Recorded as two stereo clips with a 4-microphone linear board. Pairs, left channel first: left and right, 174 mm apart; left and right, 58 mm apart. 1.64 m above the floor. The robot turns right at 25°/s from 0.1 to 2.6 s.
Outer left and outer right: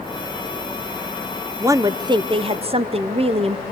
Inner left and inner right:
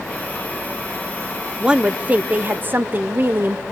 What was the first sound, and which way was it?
A woman speaking, 15° right (ahead or behind).